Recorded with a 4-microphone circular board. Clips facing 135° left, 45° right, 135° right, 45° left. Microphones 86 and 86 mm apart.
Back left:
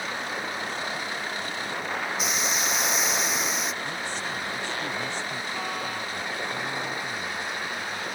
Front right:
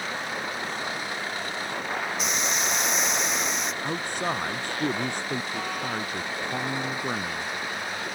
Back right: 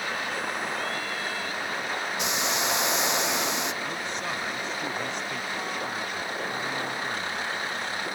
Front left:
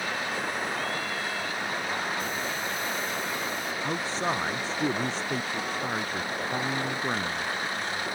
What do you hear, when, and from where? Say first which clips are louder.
2.2 s a hiss: even, back right 3 dB; 135° right
3.8 s a man speaking: front right 4 dB, front left 3 dB; 10° right